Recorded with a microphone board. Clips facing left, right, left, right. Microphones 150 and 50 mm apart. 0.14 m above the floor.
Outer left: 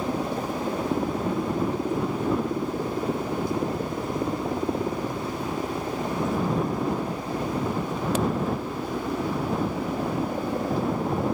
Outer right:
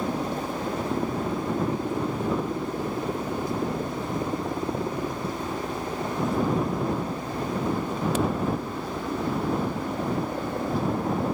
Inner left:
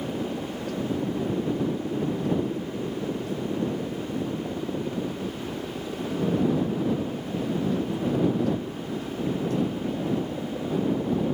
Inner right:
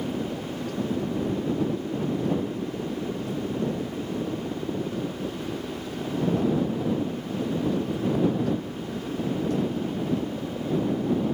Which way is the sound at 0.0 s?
5° left (ahead or behind).